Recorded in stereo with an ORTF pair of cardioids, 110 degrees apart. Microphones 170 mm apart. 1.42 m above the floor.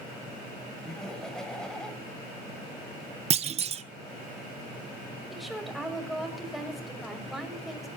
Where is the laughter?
5° left, 8.5 m.